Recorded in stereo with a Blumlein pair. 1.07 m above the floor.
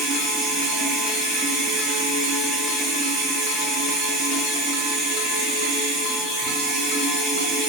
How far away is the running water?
About 0.7 m.